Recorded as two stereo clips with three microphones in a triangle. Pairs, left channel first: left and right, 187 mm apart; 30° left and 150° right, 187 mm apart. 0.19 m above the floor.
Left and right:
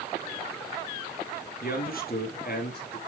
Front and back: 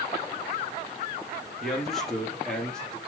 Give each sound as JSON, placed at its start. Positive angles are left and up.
{"t": 1.6, "sound": "a man speaking", "azimuth_deg": 120, "distance_m": 3.0}